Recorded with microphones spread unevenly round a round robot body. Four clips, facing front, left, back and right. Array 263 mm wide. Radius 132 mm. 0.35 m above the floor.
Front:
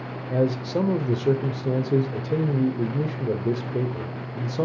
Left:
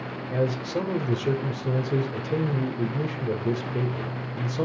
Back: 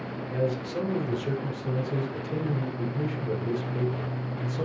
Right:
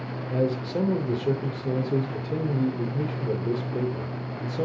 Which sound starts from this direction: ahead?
A man speaking, at 0.3 s.